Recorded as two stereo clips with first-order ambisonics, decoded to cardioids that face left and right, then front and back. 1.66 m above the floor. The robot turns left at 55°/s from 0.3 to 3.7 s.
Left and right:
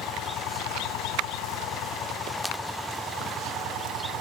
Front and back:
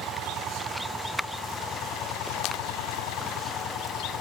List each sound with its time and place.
0.0 s an engine running: 135° left; by 4.2 s 50° right